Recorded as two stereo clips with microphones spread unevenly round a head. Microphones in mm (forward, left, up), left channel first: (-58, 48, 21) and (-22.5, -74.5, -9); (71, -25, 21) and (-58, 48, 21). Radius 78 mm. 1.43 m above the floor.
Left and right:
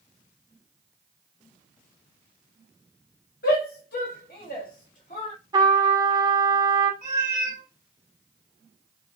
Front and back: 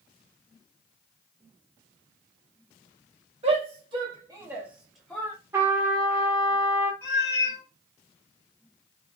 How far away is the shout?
About 1.5 m.